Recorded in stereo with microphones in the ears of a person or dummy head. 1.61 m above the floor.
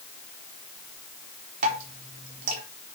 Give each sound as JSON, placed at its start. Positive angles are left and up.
{"t": 1.6, "sound": "dripping", "side_deg": -50, "distance_m": 4.0}